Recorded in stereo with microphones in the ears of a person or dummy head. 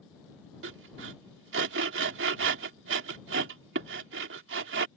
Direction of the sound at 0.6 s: 70° right (ahead or behind).